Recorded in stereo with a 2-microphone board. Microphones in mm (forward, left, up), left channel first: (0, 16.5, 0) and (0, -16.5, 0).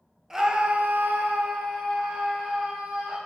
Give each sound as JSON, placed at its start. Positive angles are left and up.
{"t": 0.3, "sound": "a scream", "side_deg": -10, "distance_m": 0.8}